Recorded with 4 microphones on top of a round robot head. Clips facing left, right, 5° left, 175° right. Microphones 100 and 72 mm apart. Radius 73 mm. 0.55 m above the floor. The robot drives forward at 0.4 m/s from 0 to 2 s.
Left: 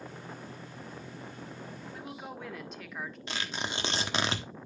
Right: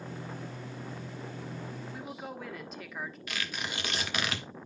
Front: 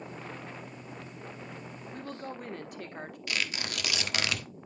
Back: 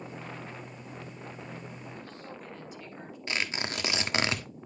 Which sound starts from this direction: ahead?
A woman speaking, at 1.9 s.